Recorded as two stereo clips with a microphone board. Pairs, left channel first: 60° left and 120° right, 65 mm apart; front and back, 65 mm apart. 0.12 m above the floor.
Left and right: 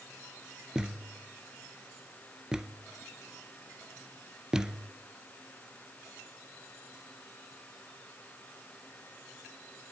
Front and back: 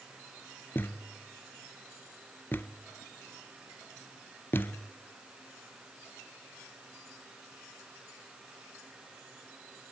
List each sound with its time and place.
0.8 s a thud: 45° right, 0.8 m